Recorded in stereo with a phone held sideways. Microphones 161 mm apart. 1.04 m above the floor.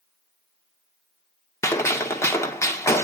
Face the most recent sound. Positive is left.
turn(degrees=15)  # may be behind; listen again after turning